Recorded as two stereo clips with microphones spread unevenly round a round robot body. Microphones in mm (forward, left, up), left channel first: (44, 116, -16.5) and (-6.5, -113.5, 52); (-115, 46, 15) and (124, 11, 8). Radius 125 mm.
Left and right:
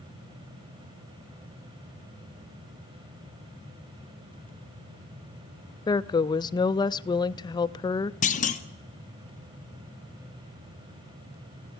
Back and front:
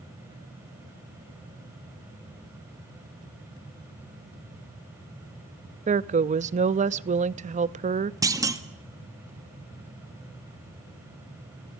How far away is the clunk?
About 1.2 m.